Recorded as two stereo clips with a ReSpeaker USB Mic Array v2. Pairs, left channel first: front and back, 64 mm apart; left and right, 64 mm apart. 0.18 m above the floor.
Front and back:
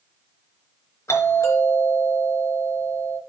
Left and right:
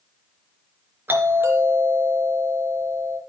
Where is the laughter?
I don't hear laughter.